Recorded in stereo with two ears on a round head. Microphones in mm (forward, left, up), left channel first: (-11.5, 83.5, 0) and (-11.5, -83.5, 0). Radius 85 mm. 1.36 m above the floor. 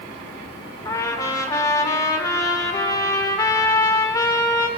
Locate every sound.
0.8 s a trumpet: 20° left (ahead or behind), 2.5 m